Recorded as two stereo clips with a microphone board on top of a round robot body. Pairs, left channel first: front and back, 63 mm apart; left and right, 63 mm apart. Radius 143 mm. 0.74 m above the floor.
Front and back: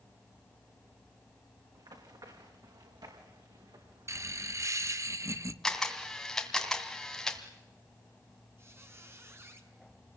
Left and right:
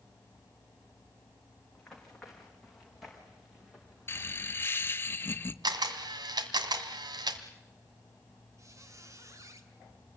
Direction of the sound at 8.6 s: 130° right.